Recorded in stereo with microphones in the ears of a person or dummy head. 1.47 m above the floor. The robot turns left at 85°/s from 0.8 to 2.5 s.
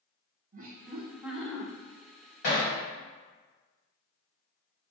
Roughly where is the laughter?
Behind right.